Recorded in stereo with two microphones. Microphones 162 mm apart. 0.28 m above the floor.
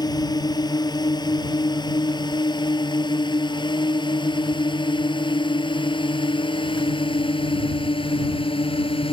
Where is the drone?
25° left (ahead or behind); by 9.1 s 35° left (ahead or behind).